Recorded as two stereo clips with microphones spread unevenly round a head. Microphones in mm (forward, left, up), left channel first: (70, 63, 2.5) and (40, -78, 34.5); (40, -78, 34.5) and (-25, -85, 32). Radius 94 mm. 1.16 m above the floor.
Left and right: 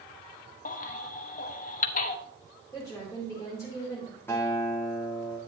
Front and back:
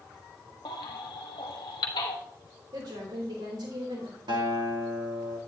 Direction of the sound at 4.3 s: 160° left.